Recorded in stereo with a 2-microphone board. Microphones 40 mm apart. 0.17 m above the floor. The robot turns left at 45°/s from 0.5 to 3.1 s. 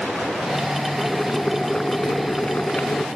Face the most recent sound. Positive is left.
turn(degrees=75)